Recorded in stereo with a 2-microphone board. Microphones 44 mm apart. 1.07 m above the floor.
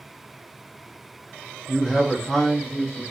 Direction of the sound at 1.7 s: Centre (ahead or behind).